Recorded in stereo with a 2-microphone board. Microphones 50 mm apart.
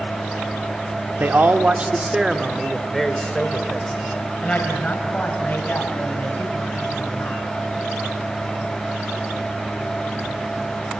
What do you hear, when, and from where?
1.2 s a man speaking: 40° right (ahead or behind), 2.0 m; by 7.5 s 40° left (ahead or behind), 7 m